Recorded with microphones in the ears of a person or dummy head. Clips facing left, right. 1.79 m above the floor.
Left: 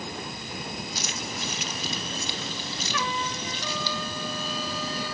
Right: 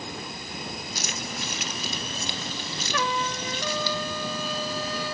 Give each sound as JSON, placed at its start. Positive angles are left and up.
{"t": 0.9, "sound": "keys jangling", "side_deg": -40, "distance_m": 1.2}
{"t": 2.9, "sound": "a trumpet", "side_deg": -40, "distance_m": 1.4}